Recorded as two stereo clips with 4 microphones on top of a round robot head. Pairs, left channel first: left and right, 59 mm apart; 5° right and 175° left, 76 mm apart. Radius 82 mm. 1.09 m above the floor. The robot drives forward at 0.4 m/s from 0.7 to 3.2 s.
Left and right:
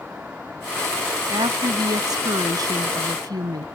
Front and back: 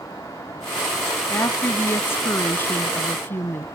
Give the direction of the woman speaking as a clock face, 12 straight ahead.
2 o'clock.